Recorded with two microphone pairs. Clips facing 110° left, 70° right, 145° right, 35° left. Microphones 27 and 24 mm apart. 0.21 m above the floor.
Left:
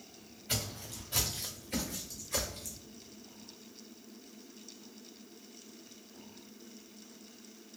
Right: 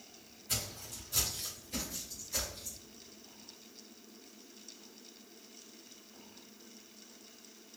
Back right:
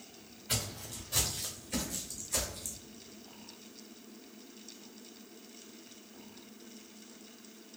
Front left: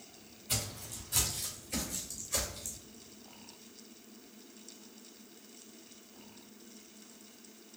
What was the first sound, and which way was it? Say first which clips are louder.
Footsteps: left 2 dB, back right 1 dB; 160° left.